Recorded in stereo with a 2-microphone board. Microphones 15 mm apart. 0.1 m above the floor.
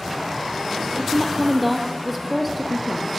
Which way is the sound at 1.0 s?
10° left (ahead or behind).